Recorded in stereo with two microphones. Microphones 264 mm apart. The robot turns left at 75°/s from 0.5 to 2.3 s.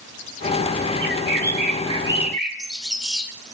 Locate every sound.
1.0 s a bird: 80° right, 1.7 m; by 3.3 s straight behind, 1.7 m